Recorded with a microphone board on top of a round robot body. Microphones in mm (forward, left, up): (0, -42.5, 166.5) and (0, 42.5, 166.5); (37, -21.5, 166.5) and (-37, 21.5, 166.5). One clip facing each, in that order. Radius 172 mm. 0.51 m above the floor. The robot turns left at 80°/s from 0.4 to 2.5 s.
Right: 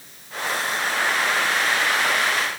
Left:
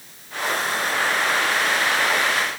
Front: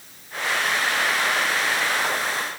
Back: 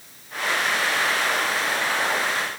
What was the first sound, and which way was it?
Only background noise.